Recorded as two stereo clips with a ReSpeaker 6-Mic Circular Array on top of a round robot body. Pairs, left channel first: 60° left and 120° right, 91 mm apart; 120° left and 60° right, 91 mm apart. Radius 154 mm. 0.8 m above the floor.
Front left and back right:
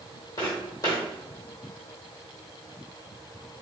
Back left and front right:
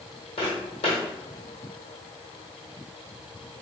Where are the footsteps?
115° left, 1.6 m.